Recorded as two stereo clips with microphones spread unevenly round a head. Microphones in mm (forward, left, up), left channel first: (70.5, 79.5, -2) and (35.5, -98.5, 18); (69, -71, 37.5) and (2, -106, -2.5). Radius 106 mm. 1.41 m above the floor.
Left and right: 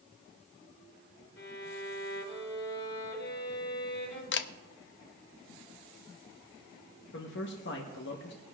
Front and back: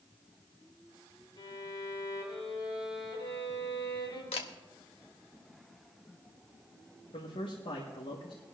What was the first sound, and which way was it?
A violin, 70° left.